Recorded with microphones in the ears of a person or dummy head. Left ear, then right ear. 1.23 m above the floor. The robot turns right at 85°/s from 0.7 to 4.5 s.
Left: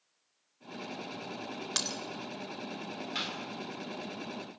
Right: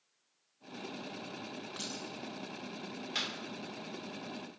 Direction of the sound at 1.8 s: 70° left (ahead or behind).